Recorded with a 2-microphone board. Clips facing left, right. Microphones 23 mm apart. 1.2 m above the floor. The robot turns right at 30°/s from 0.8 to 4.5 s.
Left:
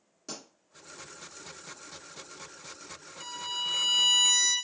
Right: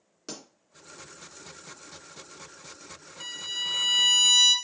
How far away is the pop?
About 2.5 m.